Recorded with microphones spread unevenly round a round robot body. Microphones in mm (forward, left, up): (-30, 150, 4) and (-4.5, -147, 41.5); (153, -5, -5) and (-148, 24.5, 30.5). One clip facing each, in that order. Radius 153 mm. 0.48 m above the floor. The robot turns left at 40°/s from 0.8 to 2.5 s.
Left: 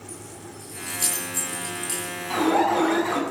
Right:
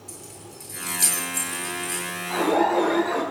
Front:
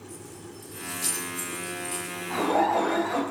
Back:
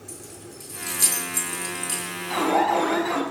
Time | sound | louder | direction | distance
0.1 | keys jangling | left 2 dB, back 1 dB | 155° right | 7.5 m
2.3 | an alarm | even, back 2 dB | 135° left | 6.5 m